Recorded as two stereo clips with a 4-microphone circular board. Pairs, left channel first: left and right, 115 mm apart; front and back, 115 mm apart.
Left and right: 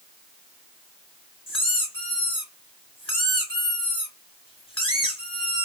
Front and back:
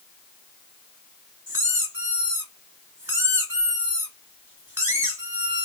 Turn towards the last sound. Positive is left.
turn(degrees=115)